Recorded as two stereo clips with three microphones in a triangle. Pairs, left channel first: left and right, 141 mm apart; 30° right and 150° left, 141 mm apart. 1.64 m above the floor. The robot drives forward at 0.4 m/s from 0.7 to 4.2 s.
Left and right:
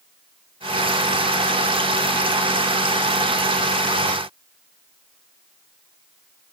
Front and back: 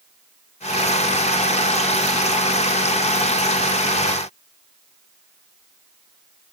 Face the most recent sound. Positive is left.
No sound to turn to.